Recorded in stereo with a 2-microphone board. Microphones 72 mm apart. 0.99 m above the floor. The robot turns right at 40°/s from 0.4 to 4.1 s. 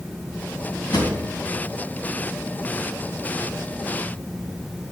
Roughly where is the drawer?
Left.